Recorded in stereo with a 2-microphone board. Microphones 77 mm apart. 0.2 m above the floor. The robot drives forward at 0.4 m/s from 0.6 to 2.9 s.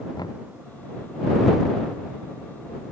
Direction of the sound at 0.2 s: 65° left (ahead or behind).